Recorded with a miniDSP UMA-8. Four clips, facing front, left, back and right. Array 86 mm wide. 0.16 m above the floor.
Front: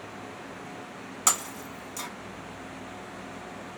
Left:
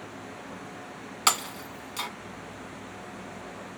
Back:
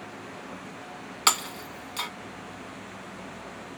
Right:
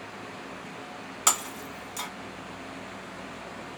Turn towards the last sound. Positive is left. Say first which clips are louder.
# left 2 dB, back 4 dB
turn(degrees=150)